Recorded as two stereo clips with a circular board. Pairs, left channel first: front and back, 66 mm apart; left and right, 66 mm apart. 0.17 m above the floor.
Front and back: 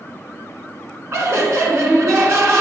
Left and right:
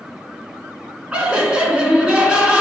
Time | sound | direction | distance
1.1 | laughter | 155° right | 1.6 m